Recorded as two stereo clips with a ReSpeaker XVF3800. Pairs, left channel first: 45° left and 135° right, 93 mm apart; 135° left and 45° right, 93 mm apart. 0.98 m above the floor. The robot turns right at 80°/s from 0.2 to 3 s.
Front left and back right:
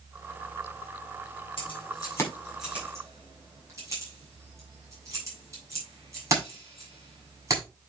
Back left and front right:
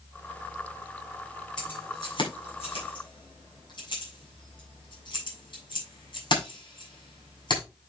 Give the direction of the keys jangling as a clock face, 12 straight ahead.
10 o'clock.